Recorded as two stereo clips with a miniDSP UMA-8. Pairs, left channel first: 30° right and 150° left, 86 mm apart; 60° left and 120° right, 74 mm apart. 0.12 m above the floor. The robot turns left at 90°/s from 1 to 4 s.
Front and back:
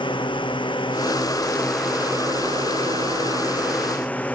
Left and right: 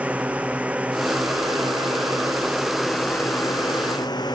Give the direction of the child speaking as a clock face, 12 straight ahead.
I don't hear a child speaking.